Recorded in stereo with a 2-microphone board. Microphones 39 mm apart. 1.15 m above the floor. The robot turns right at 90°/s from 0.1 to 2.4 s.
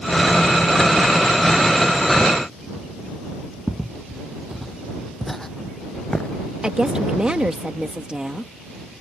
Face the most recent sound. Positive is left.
turn(degrees=-20)  # may be behind; listen again after turning